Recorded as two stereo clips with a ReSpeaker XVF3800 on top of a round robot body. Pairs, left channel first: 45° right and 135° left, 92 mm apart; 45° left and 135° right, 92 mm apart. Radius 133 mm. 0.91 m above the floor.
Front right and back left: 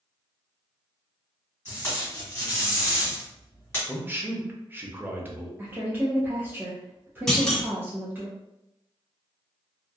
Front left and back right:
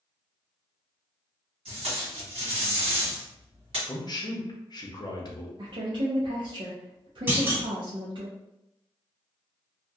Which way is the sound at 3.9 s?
70° left.